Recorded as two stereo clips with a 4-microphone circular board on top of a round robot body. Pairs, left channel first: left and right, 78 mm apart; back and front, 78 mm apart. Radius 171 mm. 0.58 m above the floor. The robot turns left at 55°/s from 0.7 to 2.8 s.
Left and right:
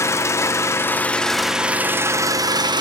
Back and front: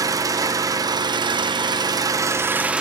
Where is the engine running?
40° left, 1.2 m; by 2.8 s 75° right, 1.2 m.